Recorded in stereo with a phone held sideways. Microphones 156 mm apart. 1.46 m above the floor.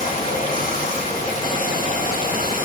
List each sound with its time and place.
0.0 s running water: 60° left (ahead or behind), 6.5 m